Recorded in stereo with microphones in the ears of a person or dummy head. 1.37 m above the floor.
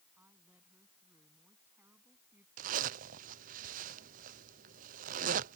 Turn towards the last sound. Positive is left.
turn(degrees=-45)  # may be behind; listen again after turning